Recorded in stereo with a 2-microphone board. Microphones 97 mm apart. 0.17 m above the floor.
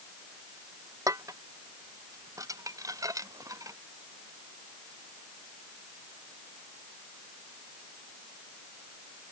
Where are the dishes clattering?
35° right (ahead or behind).